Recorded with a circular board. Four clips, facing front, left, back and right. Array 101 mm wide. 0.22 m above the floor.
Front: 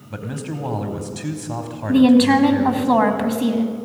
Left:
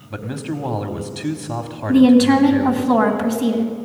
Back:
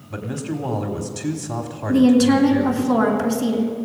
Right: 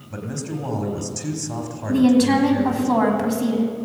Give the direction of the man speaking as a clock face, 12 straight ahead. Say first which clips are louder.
Left 3 dB, back 2 dB; 9 o'clock.